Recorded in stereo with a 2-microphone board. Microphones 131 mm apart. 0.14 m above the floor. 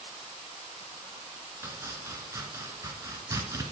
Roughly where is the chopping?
Right.